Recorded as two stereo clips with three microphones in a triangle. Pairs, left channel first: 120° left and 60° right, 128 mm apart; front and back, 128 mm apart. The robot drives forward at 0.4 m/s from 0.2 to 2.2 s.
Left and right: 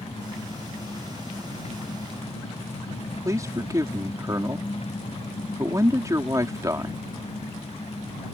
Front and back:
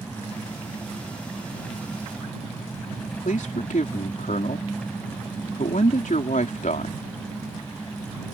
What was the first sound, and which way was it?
An engine running, 75° left.